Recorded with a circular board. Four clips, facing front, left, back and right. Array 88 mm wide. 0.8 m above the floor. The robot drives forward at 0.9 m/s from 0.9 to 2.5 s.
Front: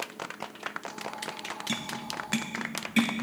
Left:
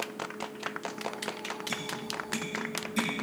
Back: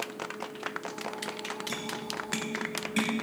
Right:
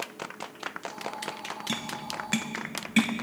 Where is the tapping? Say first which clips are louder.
Right 2 dB, even; 55° right, 1.9 m; by 3.2 s 80° right, 1.6 m.